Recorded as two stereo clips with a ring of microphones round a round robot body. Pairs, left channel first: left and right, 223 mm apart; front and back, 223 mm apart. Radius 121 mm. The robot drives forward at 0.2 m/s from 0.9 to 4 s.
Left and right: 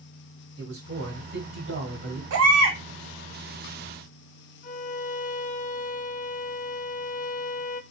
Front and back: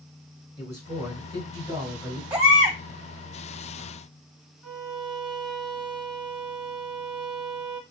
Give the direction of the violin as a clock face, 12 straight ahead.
7 o'clock.